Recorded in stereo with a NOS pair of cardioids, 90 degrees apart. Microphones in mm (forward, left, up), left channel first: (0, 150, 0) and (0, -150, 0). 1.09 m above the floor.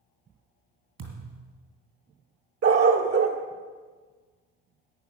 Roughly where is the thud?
Ahead right.